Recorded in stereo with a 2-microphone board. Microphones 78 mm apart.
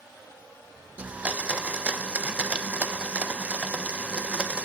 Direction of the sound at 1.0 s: 15° right (ahead or behind).